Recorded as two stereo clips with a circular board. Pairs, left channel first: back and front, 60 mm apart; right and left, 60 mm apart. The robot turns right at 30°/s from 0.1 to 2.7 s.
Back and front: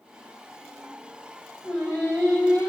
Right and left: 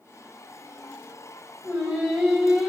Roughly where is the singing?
Behind left.